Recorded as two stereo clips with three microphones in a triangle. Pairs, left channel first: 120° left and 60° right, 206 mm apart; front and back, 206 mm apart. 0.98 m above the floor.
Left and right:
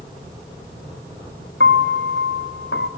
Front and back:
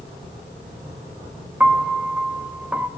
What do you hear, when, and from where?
1.6 s a piano: 100° left, 0.8 m